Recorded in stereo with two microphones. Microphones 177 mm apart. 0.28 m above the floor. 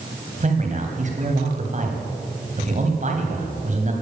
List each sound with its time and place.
0.4 s a man speaking: 45° right (ahead or behind), 2 m